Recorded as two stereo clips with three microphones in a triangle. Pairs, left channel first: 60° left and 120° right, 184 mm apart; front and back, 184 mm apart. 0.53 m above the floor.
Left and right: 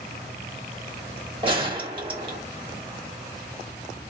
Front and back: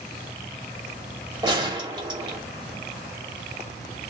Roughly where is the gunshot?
Behind right.